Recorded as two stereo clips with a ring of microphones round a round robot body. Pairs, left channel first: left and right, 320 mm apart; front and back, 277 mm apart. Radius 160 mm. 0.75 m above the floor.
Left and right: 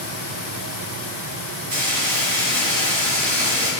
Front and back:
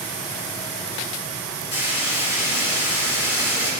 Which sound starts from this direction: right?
Frying, at 1.7 s.